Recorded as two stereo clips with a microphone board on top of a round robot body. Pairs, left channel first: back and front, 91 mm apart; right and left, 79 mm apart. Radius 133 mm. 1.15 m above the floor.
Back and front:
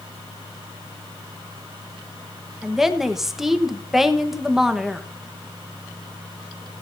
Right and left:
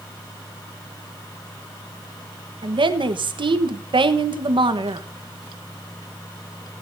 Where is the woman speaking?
85° left, 1.3 m.